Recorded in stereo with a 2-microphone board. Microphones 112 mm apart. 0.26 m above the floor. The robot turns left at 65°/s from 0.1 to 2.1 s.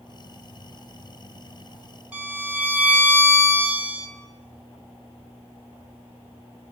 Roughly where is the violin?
Centre.